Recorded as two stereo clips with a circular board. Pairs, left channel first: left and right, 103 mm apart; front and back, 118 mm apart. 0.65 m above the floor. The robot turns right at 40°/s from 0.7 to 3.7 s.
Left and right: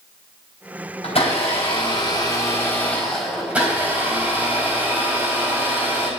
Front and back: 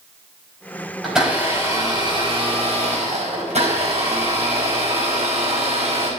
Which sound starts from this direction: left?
A blender, at 1.0 s.